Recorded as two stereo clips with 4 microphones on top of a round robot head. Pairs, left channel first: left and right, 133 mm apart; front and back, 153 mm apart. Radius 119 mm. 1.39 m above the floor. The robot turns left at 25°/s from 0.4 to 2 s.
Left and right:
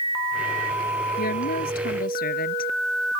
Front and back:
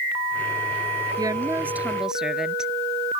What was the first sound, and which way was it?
A woman speaking, 115° left.